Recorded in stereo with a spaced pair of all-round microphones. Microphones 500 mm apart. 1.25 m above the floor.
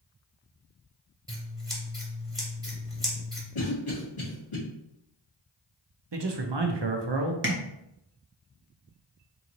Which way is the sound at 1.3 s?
10° right (ahead or behind).